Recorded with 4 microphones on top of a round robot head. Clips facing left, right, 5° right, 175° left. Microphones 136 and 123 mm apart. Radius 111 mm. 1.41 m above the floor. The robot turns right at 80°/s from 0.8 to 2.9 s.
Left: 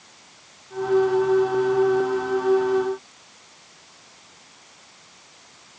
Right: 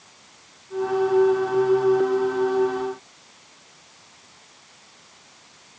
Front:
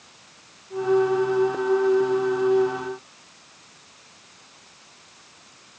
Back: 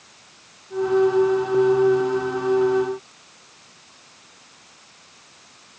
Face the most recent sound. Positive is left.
No sound to turn to.